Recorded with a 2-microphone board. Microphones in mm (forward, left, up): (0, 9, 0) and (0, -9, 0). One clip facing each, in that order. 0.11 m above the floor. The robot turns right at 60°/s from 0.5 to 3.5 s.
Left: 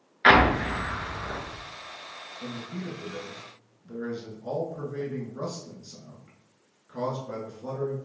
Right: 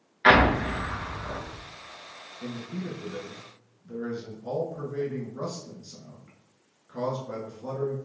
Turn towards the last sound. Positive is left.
turn(degrees=15)  # may be behind; listen again after turning